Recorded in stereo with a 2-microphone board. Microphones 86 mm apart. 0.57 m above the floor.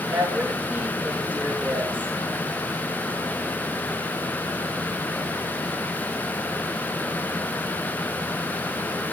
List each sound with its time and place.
0.1 s a woman speaking: 20° right (ahead or behind), 6.5 m